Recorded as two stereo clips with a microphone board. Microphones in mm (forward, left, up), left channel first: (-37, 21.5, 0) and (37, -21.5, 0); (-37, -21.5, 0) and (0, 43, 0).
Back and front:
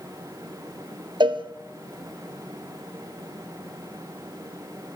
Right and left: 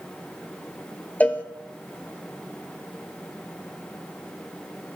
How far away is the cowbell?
About 1.8 m.